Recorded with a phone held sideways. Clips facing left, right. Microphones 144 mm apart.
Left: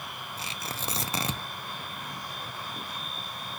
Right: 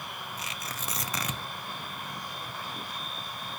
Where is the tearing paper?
30° left (ahead or behind), 0.7 m.